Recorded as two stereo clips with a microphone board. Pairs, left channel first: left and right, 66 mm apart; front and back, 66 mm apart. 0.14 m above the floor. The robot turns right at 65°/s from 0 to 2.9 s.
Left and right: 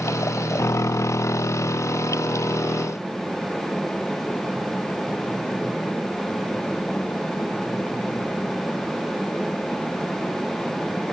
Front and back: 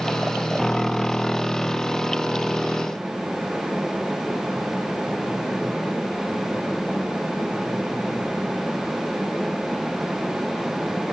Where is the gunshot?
No gunshot in this recording.